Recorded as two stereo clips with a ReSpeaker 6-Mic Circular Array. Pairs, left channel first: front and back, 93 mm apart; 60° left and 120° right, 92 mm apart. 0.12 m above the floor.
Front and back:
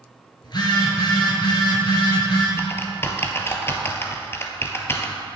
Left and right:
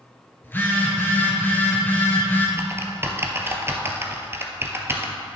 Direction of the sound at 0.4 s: Straight ahead.